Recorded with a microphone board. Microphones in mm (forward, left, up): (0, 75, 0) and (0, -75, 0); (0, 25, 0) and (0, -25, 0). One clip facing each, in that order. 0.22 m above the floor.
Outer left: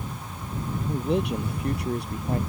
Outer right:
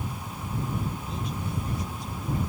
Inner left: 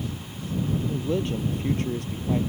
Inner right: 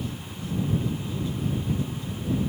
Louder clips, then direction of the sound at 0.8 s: Outer left 9 dB, inner left 4 dB; 75° left (ahead or behind).